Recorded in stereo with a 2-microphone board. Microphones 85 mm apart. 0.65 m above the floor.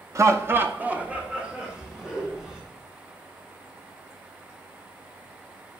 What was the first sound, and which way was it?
Laughter, 35° right (ahead or behind).